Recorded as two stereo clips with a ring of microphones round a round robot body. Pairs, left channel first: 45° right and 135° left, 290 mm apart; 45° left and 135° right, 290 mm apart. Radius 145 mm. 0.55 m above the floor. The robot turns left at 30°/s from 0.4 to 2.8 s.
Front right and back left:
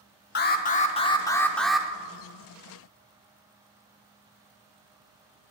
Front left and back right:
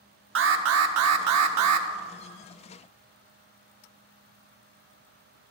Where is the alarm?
95° right, 0.8 m; by 1.9 s 140° right, 0.8 m.